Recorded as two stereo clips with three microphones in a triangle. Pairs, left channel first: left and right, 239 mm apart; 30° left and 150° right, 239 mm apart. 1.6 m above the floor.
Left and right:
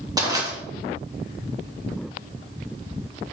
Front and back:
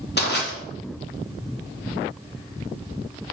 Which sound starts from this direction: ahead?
Crushing, at 0.2 s.